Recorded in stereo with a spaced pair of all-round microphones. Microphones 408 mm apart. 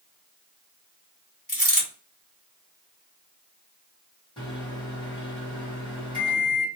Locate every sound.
1.5 s a dropped coin: 25° left (ahead or behind), 1.4 m
4.4 s a microwave: 10° left (ahead or behind), 1.3 m